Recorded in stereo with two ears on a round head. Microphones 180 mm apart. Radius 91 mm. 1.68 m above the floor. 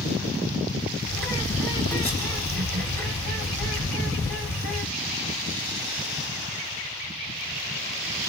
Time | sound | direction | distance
1.1 | a bird | 10° left (ahead or behind) | 2 m